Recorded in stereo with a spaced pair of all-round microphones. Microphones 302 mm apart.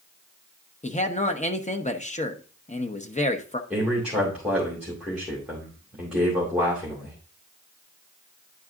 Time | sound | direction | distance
0.8 | a man speaking | 25° left (ahead or behind) | 0.8 m
3.7 | a man speaking | 5° right (ahead or behind) | 2.5 m